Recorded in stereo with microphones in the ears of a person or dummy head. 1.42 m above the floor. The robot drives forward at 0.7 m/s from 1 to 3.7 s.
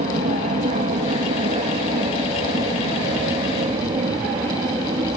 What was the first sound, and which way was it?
An aircraft, 40° right (ahead or behind).